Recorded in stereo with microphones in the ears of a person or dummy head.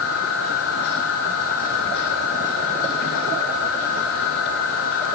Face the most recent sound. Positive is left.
turn(degrees=70)  # may be behind; listen again after turning